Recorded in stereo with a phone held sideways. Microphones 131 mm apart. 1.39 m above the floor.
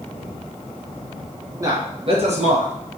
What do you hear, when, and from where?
1.6 s a man speaking: 25° right (ahead or behind), 0.9 m; by 2.7 s 70° right (ahead or behind), 1.0 m